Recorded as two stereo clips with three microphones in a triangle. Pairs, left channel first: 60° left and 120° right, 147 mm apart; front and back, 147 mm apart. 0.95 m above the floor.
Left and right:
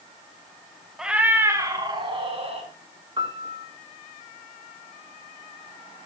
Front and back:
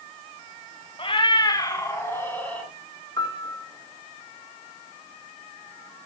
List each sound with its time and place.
1.0 s a cat meowing: 35° right, 1.1 m; by 2.7 s 80° right, 1.6 m
3.2 s a piano: 60° right, 2.0 m